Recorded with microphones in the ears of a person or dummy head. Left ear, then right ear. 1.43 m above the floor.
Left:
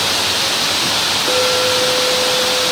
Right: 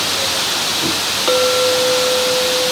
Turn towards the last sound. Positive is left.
turn(degrees=-70)  # may be behind; listen again after turning